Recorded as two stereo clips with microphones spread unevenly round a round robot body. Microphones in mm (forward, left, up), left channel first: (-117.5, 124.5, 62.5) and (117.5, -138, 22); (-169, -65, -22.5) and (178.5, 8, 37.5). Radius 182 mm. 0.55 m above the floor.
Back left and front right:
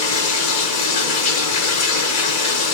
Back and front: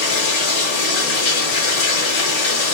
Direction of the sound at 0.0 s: Straight behind.